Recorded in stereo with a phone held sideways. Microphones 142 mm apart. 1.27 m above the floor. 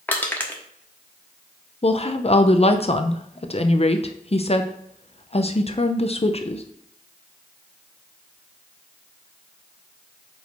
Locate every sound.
0.1 s crushing: 10° left (ahead or behind), 1.1 m
1.8 s a woman speaking: 45° left (ahead or behind), 0.6 m